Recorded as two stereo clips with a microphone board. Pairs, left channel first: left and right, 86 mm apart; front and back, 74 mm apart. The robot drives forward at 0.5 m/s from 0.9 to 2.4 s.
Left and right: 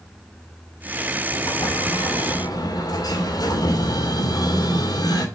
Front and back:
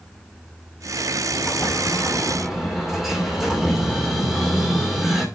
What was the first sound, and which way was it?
An explosion, 75° left.